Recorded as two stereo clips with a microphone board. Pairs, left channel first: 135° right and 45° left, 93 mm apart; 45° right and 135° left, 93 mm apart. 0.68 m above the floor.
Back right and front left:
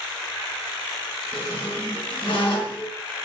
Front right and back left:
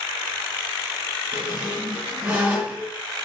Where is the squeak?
155° right, 0.8 m.